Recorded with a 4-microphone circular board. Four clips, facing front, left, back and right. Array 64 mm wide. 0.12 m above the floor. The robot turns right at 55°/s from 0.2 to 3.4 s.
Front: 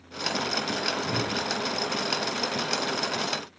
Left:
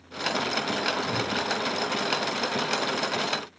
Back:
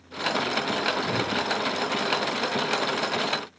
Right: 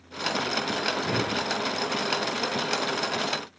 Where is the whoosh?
105° right, 0.6 m; by 1.5 s 75° right, 0.6 m.